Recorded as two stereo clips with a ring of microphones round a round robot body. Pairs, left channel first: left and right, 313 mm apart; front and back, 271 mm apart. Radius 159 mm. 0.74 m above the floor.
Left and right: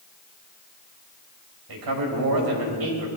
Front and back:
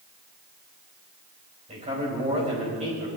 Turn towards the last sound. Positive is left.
turn(degrees=-110)